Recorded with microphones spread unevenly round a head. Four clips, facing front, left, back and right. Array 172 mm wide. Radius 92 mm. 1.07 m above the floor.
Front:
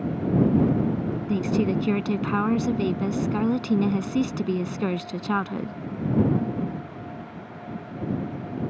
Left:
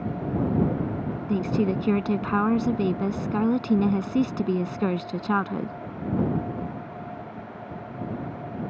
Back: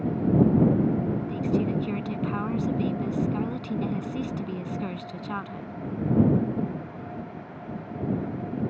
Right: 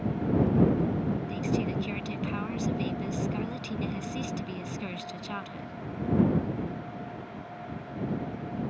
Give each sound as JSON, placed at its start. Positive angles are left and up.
{"t": 1.3, "sound": "a woman speaking", "azimuth_deg": 55}